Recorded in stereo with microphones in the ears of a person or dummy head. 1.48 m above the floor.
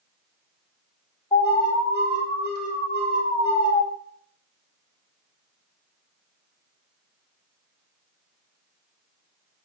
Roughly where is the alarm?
Left.